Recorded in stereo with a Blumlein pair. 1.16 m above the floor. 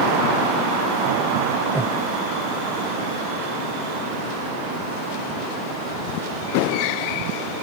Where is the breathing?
5° right.